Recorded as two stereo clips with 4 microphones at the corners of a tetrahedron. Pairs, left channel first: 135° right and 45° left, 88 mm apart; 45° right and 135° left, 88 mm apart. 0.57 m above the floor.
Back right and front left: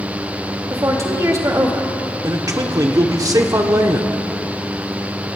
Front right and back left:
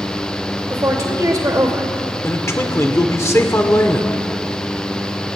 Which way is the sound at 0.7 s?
90° left.